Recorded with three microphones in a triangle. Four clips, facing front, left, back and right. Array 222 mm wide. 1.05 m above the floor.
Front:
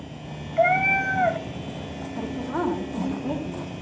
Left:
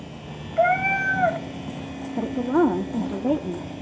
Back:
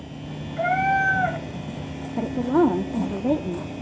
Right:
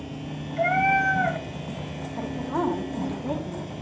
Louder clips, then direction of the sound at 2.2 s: Left 7 dB, back 8 dB; 130° left.